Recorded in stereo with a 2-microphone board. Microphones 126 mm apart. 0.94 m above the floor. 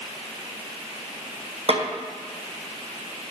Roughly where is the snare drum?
Right.